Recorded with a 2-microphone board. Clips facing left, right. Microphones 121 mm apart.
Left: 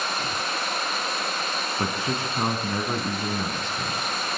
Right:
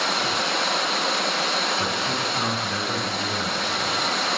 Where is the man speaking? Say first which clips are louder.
Right 1 dB; 25° left (ahead or behind), 5.5 m.